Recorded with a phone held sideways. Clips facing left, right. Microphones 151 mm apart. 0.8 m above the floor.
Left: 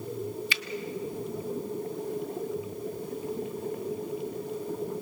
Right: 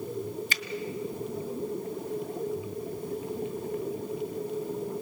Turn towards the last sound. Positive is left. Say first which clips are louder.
# even
turn(degrees=-45)  # may be behind; listen again after turning